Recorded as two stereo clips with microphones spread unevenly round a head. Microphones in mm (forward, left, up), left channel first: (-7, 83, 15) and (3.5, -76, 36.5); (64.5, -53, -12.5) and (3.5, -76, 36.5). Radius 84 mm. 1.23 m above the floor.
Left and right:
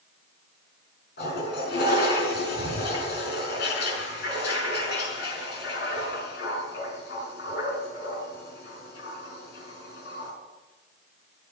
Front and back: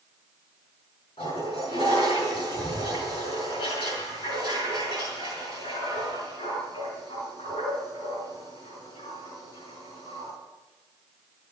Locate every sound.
1.2 s a toilet flushing: 65° left, 5.5 m